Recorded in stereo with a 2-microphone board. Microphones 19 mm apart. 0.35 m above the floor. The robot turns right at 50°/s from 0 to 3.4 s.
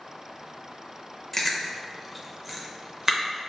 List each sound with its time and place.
1.3 s chewing: 15° left (ahead or behind), 0.5 m; by 3.2 s 30° right (ahead or behind), 0.5 m